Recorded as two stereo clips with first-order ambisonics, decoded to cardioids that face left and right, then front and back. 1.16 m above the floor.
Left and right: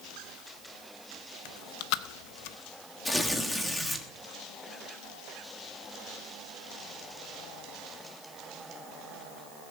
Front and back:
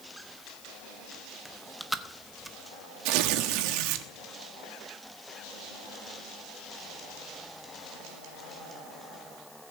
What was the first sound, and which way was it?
Chewing, 95° left.